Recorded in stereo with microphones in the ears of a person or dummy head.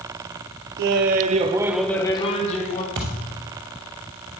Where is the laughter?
65° right (ahead or behind), 1.1 m; by 2.9 s 45° left (ahead or behind), 1.3 m.